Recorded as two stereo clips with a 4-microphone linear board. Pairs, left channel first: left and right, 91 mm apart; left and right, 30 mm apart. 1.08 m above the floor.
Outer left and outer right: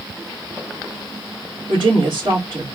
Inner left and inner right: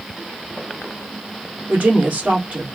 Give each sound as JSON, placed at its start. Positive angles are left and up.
{"t": 1.7, "sound": "a woman speaking", "side_deg": -65, "distance_m": 2.5}